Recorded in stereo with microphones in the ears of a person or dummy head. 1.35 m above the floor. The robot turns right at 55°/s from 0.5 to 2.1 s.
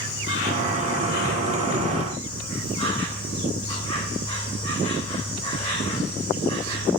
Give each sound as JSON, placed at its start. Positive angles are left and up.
{"t": 0.0, "sound": "an insect", "azimuth_deg": 65, "distance_m": 3.5}